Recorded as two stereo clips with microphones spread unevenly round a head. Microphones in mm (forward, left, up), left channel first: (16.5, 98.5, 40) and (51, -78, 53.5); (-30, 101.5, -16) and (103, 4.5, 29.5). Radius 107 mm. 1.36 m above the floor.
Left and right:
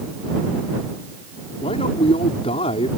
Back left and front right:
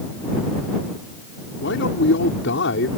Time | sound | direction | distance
1.6 | a man speaking | 165° left | ?